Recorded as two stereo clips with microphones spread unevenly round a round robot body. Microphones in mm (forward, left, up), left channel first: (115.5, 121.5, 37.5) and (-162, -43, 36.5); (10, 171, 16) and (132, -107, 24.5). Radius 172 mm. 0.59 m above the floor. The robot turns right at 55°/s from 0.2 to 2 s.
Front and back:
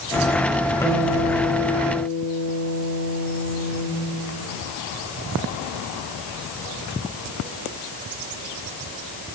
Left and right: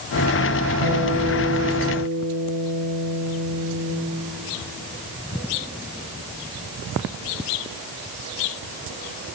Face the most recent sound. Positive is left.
turn(degrees=175)